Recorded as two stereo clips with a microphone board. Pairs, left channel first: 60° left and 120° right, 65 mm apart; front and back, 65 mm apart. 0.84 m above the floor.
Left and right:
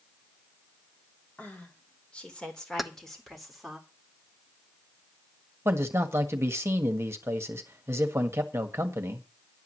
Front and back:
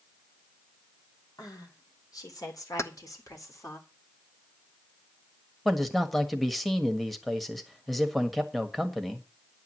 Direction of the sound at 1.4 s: 5° right.